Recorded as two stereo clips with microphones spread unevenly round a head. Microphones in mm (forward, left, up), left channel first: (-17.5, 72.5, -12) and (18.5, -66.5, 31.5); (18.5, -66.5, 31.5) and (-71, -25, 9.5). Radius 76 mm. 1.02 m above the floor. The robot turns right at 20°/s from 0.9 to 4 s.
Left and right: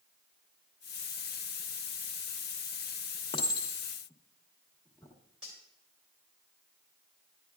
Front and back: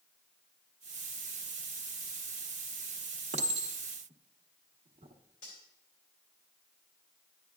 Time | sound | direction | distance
3.3 | a clink | 165° left | 1.1 m
5.4 | cutlery clinking | 5° left | 2.5 m